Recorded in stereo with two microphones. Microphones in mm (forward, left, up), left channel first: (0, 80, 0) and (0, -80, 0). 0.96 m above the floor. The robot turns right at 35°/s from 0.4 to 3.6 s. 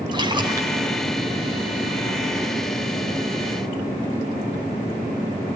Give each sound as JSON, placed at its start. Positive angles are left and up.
{"t": 0.1, "sound": "a splash", "side_deg": -30, "distance_m": 3.5}